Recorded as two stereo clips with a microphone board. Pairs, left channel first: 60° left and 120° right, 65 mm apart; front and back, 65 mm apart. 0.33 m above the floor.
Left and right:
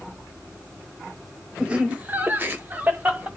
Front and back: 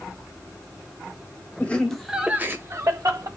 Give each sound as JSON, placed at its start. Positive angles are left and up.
{"t": 1.6, "sound": "laughter", "azimuth_deg": -55, "distance_m": 1.1}